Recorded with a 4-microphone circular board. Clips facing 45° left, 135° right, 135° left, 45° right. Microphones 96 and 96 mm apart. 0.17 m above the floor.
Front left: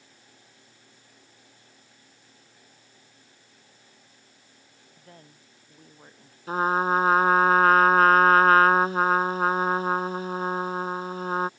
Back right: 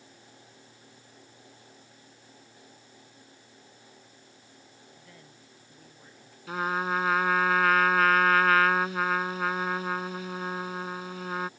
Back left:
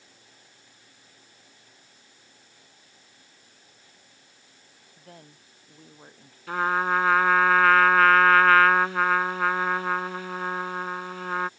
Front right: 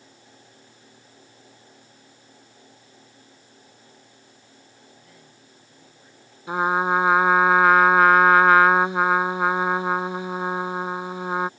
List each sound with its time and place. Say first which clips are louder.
5.0 s a woman speaking: front left 2 dB, back left 2 dB; 95° left
6.5 s a trumpet: front left 6 dB, front right 3 dB; 20° left